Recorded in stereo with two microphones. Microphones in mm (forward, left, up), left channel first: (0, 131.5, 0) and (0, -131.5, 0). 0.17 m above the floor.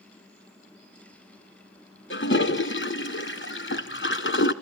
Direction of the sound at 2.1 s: 50° left (ahead or behind).